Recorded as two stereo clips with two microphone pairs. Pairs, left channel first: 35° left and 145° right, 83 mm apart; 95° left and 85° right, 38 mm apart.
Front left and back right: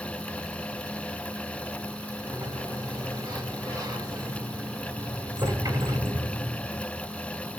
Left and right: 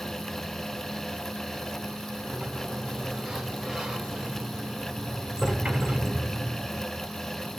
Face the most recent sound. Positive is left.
turn(degrees=-150)